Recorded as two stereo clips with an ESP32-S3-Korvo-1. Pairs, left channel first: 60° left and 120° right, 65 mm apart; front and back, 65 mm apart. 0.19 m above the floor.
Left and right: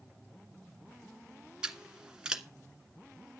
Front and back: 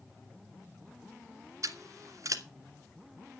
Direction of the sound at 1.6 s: 165° left.